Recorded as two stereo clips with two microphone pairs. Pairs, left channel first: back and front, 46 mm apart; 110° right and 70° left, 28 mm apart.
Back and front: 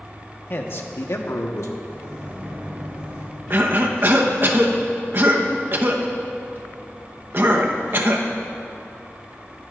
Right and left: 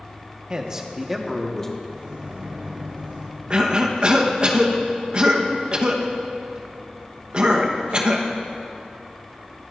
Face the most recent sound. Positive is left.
turn(degrees=25)